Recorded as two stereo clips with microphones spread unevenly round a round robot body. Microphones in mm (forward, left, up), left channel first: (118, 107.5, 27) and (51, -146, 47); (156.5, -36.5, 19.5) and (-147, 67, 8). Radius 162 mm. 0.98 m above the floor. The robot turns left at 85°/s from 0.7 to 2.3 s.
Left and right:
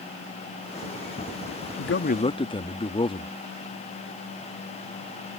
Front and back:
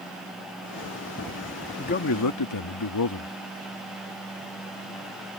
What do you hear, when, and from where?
1.8 s a man speaking: 50° left; by 3.3 s 5° left